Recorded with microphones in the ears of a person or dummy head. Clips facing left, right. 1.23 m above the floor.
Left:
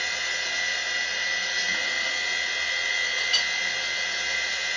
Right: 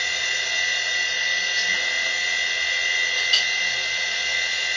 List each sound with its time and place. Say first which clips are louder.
0.0 s a machine running: right 1 dB; 10° right (ahead or behind), 1.5 m
3.2 s a clink: right 2 dB; 25° right (ahead or behind), 2.0 m